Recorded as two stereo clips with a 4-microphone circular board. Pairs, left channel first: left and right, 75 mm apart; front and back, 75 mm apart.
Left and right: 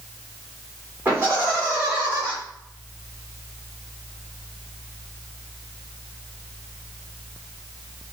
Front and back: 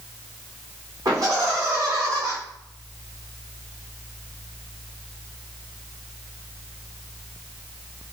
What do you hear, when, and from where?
1.1 s laughter: 150° right, 2.5 m